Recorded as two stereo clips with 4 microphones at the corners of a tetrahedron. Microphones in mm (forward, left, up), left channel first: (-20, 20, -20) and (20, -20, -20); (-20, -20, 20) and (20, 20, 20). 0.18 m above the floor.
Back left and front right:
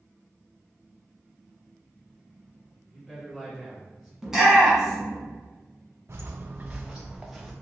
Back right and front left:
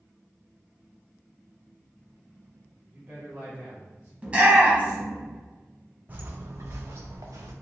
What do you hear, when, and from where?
2.9 s a man speaking: 30° left, 1.4 m
4.2 s a shout: 25° left, 1.3 m
6.1 s footsteps: 10° right, 0.5 m; by 7.5 s 45° left, 1.0 m